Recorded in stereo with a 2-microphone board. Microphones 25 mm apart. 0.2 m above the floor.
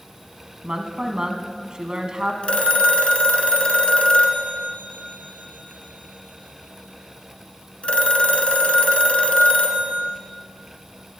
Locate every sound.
0.6 s a woman speaking: 35° right (ahead or behind), 1.4 m
2.4 s a phone ringing: 60° left (ahead or behind), 1.3 m